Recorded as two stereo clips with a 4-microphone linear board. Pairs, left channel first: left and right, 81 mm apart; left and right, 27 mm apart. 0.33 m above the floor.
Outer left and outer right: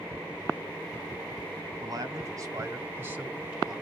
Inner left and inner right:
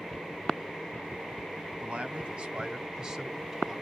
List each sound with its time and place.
1.8 s a man speaking: 50° right (ahead or behind), 2 m; by 3.8 s centre (ahead or behind), 1.2 m